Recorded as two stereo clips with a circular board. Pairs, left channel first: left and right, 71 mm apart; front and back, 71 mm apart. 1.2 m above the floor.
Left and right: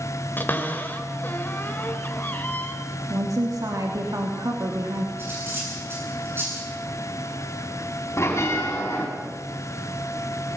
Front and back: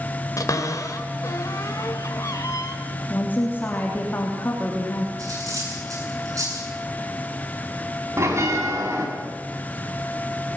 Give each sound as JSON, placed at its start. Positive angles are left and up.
{"t": 0.4, "sound": "a cupboard door", "azimuth_deg": 30, "distance_m": 2.0}
{"t": 3.1, "sound": "a woman speaking", "azimuth_deg": -60, "distance_m": 3.0}
{"t": 5.2, "sound": "cutlery clinking", "azimuth_deg": -145, "distance_m": 9.0}
{"t": 8.2, "sound": "a bell", "azimuth_deg": 140, "distance_m": 5.0}